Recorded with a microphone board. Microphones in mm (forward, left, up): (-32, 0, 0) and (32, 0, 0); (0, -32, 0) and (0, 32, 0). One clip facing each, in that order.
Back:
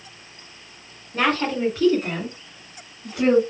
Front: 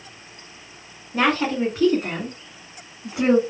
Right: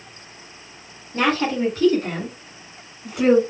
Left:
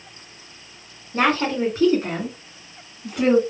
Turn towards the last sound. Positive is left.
turn(degrees=-20)